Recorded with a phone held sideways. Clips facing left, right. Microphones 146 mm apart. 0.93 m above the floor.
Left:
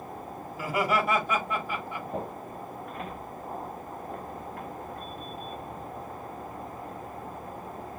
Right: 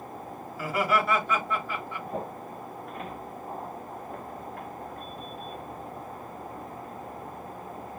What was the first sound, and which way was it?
Laughter, 15° left (ahead or behind).